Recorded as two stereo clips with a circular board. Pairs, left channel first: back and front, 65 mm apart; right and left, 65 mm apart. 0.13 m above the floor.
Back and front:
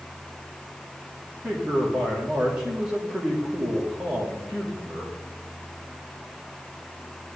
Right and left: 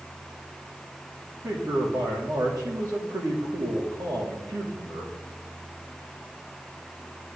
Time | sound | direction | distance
1.4 | a man speaking | 75° left | 6 m